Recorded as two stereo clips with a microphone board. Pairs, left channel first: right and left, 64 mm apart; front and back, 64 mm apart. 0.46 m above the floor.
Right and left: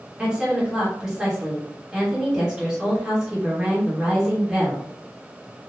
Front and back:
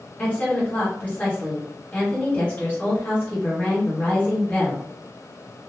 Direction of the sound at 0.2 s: 25° left.